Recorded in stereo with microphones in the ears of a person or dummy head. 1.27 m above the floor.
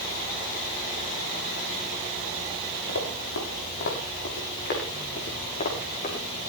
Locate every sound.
2.9 s running footsteps: 70° left (ahead or behind), 7.5 m; by 6.2 s 35° left (ahead or behind), 8 m